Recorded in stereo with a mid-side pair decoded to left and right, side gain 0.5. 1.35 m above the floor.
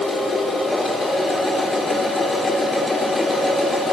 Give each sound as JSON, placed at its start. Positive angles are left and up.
{"t": 0.0, "sound": "a machine running", "azimuth_deg": 25, "distance_m": 4.5}